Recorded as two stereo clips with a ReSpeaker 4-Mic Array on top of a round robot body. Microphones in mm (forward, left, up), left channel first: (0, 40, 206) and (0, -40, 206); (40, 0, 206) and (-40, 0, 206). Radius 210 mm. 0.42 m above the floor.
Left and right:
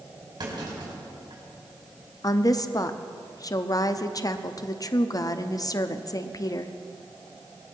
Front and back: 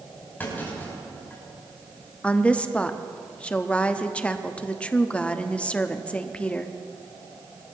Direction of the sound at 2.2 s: 70° left.